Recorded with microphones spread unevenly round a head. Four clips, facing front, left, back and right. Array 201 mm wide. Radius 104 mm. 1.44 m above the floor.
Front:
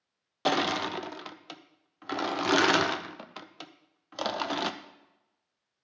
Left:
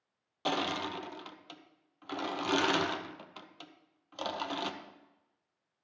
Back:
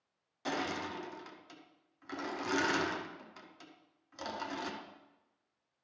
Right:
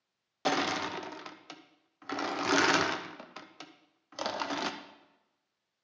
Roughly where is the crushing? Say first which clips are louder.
Right 3 dB, front 9 dB; ahead.